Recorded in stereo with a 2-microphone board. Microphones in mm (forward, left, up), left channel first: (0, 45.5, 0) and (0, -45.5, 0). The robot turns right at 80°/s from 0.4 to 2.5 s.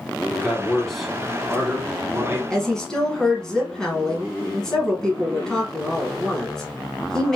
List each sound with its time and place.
0.3 s a man speaking: 20° left (ahead or behind), 1.1 m; by 2.4 s 25° right (ahead or behind), 1.1 m
2.5 s a woman speaking: 5° left (ahead or behind), 1.2 m